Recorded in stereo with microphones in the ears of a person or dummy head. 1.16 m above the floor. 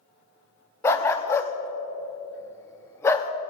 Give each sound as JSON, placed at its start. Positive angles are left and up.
{"t": 0.8, "sound": "a dog barking", "side_deg": 20, "distance_m": 0.7}